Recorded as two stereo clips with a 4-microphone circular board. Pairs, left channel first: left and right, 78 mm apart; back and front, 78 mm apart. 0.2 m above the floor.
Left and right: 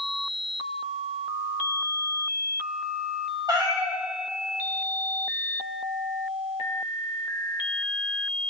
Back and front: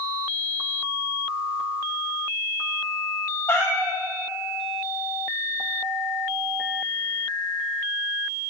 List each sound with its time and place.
3.5 s a cat meowing: 125° right, 1.0 m